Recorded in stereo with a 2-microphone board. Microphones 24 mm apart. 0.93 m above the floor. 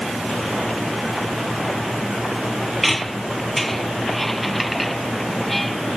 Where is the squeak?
5° left (ahead or behind).